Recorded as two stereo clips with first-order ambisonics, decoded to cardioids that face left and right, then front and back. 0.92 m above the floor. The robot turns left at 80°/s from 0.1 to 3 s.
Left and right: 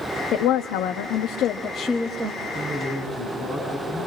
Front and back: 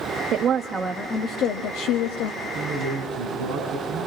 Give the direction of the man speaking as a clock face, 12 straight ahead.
4 o'clock.